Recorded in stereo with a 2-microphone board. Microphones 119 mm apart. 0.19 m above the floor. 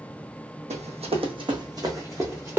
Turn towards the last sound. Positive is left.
turn(degrees=-15)  # may be behind; listen again after turning